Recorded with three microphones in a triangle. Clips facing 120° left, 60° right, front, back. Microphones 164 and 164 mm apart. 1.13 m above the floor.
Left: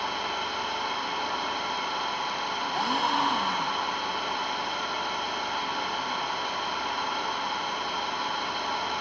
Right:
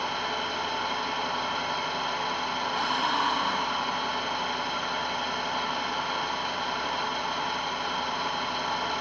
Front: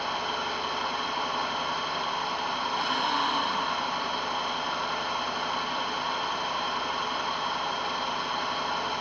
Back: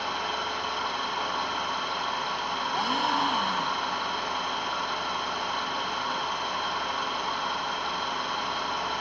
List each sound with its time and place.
0.0 s an engine running: 85° right, 5.5 m
2.7 s a gasp: 155° left, 1.3 m